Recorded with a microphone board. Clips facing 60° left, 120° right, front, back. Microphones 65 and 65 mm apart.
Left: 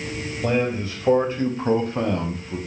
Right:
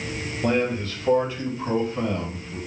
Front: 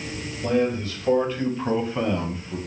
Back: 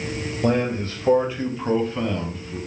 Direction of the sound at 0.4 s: 150° left.